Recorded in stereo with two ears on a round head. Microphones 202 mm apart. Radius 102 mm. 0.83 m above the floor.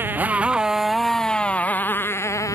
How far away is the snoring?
No snoring in this recording.